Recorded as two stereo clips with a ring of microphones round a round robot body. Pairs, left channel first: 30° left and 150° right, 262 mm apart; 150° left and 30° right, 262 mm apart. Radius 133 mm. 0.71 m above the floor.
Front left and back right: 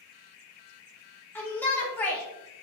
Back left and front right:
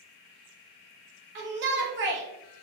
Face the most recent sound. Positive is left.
turn(degrees=-50)